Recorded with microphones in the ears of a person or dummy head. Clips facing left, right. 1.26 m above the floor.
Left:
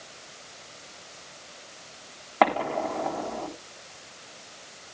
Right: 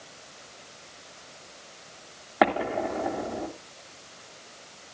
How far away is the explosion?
About 3 m.